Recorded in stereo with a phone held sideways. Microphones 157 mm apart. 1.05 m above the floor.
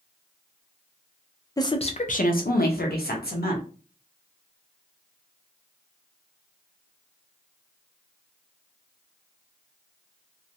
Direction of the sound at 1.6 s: 20° left (ahead or behind).